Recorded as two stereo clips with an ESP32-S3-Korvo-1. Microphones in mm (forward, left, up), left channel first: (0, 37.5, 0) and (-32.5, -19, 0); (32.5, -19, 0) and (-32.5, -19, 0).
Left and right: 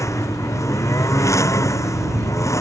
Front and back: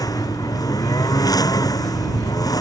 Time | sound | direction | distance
0.0 | a lawn mower | 20° left | ?